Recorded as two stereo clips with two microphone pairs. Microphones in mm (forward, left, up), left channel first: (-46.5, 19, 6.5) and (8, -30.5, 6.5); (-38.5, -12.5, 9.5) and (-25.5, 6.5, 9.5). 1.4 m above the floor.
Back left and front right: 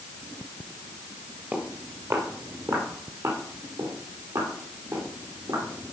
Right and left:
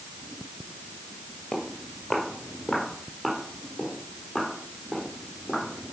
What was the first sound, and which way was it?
Footsteps, 60° right.